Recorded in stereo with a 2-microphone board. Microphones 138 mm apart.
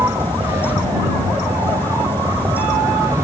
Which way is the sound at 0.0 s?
20° right (ahead or behind).